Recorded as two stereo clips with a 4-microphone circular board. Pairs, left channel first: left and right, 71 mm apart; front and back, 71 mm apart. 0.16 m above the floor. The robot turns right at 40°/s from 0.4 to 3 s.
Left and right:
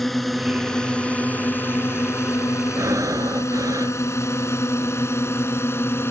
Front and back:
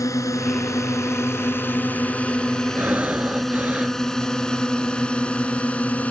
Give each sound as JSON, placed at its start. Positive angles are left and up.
{"t": 0.0, "sound": "a drone", "azimuth_deg": 5}
{"t": 2.8, "sound": "breathing", "azimuth_deg": -125}